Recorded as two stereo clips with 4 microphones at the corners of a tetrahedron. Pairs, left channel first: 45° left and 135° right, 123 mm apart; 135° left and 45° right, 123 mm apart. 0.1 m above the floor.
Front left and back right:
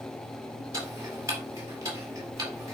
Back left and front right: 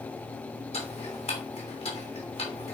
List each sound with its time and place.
0.7 s ticking: 160° left, 3 m